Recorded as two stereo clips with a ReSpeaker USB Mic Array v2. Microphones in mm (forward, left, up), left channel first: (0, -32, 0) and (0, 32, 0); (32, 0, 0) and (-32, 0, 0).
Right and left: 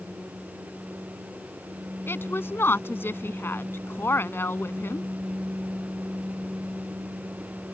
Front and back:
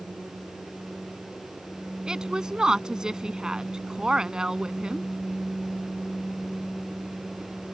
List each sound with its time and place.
2.1 s a woman speaking: 110° right